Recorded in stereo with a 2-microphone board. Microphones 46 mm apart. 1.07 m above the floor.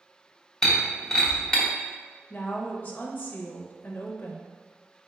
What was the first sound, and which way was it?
Breaking glass, 10° left (ahead or behind).